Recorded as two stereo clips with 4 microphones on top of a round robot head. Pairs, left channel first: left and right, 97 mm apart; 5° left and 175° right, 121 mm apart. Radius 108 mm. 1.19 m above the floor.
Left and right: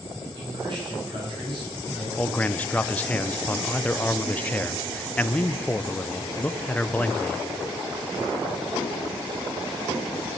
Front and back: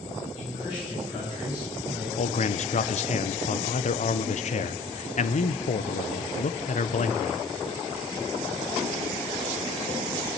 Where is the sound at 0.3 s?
50° right, 9 m; by 2.1 s 65° right, 9 m.